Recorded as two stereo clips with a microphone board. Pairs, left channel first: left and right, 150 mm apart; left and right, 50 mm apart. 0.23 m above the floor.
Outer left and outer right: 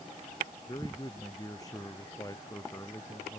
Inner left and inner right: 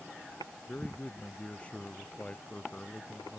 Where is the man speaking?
25° left (ahead or behind); by 3.4 s 20° left (ahead or behind).